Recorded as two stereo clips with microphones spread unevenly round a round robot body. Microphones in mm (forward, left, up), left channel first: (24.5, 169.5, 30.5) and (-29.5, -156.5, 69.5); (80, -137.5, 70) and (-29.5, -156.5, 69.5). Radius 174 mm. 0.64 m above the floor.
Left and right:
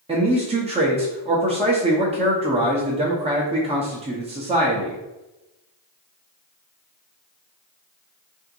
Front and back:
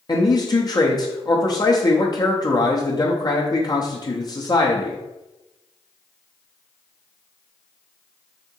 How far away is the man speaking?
About 0.9 m.